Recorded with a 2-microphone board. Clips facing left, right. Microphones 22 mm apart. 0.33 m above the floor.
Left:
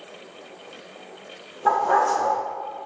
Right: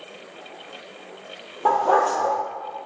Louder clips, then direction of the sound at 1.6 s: Right 1 dB; 70° right (ahead or behind).